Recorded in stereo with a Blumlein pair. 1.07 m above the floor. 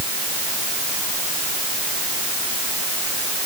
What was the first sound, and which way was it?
Only background noise.